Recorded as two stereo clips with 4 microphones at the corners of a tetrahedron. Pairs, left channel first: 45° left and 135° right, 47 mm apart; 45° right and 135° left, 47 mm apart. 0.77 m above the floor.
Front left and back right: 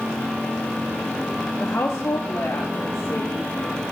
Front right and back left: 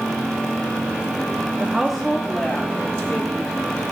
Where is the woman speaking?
85° left, 0.7 m; by 3.8 s 10° left, 3.5 m.